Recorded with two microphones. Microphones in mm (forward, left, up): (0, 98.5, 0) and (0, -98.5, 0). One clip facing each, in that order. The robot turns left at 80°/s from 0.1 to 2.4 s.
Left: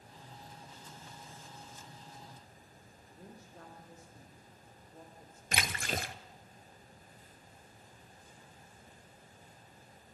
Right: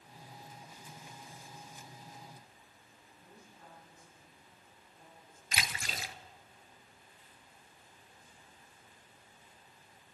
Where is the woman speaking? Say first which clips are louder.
Left 6 dB; 75° left (ahead or behind), 6.5 m.